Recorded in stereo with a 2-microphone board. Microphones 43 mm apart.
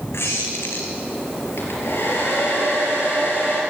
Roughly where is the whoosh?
I don't hear a whoosh.